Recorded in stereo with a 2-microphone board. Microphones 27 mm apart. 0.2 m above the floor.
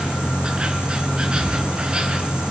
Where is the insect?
35° right (ahead or behind), 3 m.